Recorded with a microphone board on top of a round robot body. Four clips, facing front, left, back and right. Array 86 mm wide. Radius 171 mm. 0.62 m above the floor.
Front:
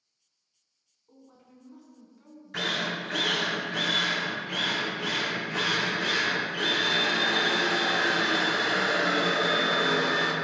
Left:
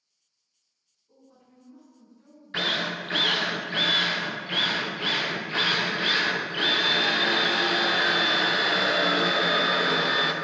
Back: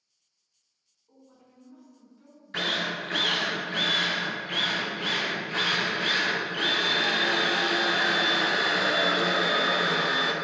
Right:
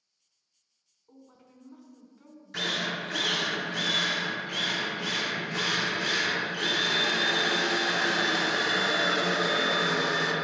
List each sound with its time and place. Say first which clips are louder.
1.1 s a woman speaking: right 2 dB, front 2 dB; 80° right, 2 m
2.5 s a drill: left 3 dB, back 1 dB; 105° left, 0.8 m